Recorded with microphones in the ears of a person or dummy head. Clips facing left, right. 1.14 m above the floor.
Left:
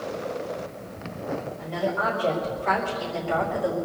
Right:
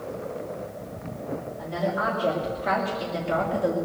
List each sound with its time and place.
1.6 s a woman speaking: 5° right (ahead or behind), 3 m; by 3.8 s 35° right (ahead or behind), 2 m